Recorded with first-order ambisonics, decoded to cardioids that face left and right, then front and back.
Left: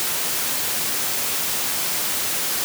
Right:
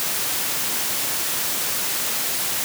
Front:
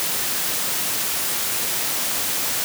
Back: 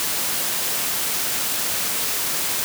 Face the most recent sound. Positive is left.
No sound to turn to.